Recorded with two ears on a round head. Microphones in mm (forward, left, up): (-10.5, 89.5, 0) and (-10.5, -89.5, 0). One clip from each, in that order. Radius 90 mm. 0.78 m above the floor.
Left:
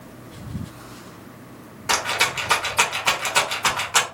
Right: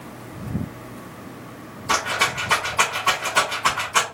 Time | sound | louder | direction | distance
1.9 | a rattle | even | 45° left (ahead or behind) | 1.0 m